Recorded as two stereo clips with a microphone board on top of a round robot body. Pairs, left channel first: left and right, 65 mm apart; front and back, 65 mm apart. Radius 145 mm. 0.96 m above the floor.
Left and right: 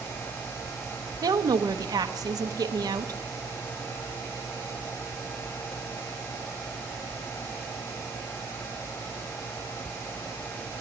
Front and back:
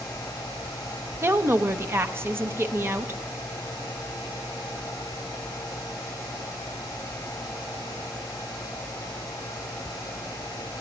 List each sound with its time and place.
1.2 s a woman speaking: 125° right, 0.9 m